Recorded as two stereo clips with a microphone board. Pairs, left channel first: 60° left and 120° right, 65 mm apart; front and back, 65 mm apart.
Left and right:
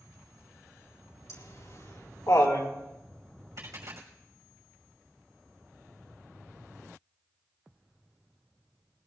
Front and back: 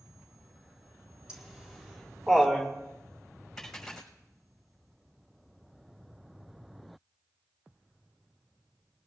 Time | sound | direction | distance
1.3 | laughter | 100° left | 4.5 m
3.6 | a dropped coin | 85° right | 5 m